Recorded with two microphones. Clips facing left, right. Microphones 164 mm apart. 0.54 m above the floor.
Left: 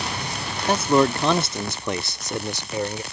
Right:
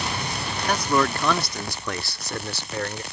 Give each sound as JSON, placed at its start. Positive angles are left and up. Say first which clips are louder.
{"t": 0.7, "sound": "a man speaking", "louder": "left 5 dB", "side_deg": 25}